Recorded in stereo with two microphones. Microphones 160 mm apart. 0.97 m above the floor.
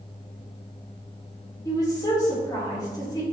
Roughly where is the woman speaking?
Left.